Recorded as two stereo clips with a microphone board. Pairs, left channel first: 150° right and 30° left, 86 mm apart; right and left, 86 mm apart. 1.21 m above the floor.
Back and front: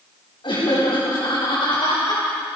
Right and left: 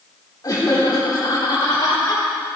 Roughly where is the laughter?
Behind right.